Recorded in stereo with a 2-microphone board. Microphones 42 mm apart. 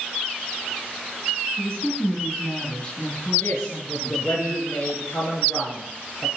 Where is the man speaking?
75° left (ahead or behind), 3.5 m.